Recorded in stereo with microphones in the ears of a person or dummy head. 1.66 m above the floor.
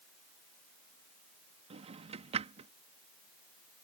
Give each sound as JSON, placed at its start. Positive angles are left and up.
{"t": 1.7, "sound": "a drawer", "side_deg": -25}